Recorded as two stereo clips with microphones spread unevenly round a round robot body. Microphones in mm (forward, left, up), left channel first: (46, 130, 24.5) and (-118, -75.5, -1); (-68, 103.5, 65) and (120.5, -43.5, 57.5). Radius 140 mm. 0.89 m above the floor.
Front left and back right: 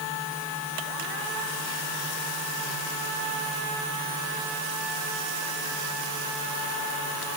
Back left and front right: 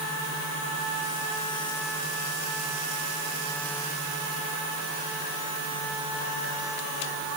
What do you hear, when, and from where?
Only background noise.